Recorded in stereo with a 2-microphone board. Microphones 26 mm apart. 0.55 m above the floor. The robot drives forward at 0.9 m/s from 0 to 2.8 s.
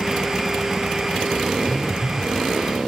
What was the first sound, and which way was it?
A phone buzzing, 5° right (ahead or behind).